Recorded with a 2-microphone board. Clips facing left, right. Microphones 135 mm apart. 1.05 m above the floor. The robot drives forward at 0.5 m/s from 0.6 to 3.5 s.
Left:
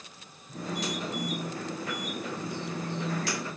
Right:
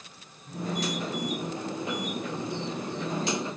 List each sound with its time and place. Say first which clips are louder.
0.5 s a phone buzzing: right 3 dB; 80° right, 9.5 m; by 3.2 s 75° right (ahead or behind), 10 m